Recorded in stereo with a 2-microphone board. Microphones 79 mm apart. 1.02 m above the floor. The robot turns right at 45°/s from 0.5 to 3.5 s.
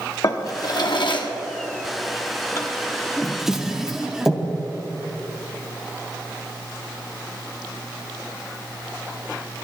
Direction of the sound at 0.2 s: 50° left (ahead or behind).